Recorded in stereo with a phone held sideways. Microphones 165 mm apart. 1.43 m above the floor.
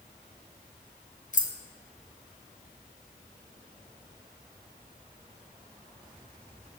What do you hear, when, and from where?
1.3 s keys jangling: 50° left (ahead or behind), 0.6 m